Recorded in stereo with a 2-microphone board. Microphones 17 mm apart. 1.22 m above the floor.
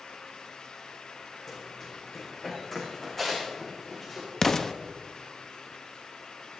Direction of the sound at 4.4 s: 20° left (ahead or behind).